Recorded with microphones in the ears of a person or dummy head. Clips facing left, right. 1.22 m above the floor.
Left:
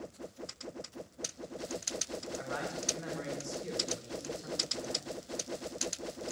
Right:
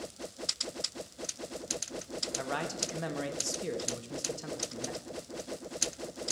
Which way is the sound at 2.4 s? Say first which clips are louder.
Right 4 dB; 65° right (ahead or behind).